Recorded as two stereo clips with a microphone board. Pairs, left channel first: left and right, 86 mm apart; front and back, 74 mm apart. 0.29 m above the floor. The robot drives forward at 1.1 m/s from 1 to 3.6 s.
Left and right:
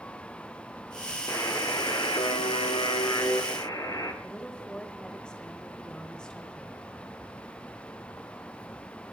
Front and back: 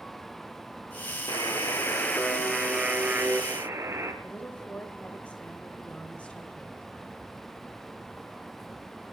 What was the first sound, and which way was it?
A buzzer, 45° left.